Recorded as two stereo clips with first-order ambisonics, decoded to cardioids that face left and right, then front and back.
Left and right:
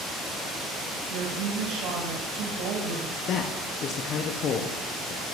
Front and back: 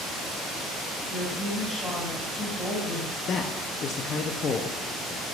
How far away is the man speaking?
About 0.6 m.